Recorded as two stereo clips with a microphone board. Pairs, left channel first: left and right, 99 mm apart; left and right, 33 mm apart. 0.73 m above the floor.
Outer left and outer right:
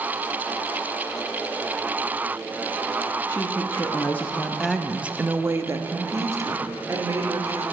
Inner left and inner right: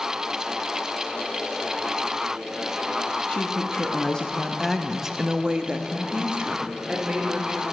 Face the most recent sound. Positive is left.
turn(degrees=-35)  # may be behind; listen again after turning